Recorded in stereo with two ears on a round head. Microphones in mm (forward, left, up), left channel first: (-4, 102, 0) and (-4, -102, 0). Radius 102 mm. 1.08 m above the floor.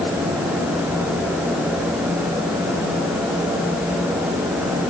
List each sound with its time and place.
Only background noise.